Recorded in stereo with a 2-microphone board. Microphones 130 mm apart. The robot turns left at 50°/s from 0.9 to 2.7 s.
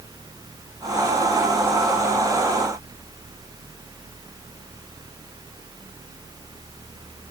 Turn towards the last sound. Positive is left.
No sound to turn to.